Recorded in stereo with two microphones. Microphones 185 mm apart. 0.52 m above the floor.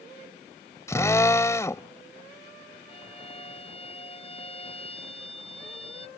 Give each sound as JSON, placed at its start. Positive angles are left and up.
{"t": 0.9, "sound": "a drill", "side_deg": 15}
{"t": 2.9, "sound": "a violin", "side_deg": 30}